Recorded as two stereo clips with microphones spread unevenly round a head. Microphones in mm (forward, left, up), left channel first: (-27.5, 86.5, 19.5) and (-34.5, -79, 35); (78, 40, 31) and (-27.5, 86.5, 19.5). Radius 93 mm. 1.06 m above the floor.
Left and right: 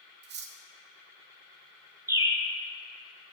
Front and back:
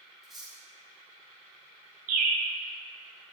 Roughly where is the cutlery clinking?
Behind right.